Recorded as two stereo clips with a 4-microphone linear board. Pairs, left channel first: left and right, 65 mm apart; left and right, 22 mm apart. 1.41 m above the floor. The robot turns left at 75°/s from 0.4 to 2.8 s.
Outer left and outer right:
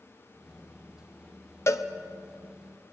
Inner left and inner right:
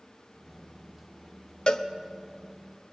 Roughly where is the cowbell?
Left.